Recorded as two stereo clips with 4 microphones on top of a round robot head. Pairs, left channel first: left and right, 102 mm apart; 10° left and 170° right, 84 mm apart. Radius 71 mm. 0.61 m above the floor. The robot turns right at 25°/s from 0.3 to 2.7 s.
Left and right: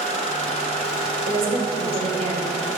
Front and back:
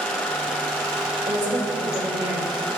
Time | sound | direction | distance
1.3 | a woman speaking | 130° right | 2.5 m